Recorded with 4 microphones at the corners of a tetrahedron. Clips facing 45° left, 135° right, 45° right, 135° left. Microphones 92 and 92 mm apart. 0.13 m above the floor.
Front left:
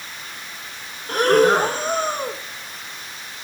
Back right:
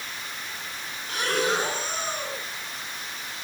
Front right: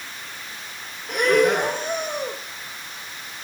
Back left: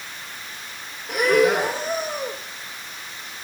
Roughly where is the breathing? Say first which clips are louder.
Front left 11 dB, even; ahead left.